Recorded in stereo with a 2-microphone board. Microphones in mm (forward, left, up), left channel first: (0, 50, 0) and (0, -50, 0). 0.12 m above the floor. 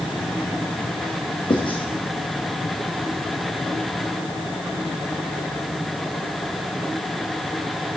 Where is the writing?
60° left (ahead or behind), 1.8 m.